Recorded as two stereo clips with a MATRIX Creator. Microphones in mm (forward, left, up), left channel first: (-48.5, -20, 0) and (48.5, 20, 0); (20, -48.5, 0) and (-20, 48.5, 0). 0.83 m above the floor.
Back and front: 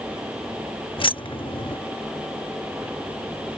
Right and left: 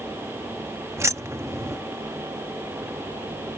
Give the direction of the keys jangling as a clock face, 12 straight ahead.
6 o'clock.